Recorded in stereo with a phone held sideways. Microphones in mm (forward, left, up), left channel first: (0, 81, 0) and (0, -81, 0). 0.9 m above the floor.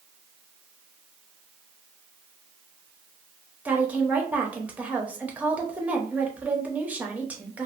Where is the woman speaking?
10° right (ahead or behind), 0.7 m.